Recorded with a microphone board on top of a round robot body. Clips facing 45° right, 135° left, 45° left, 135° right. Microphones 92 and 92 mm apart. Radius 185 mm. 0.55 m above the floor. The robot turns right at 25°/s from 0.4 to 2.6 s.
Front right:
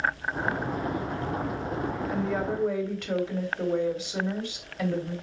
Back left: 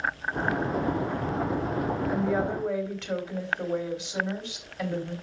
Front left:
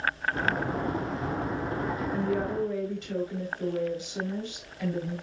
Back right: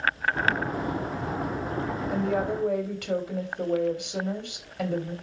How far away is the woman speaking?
About 3 m.